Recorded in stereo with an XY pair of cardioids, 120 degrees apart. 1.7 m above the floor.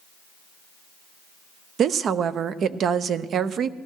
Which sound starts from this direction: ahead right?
A woman speaking, at 1.8 s.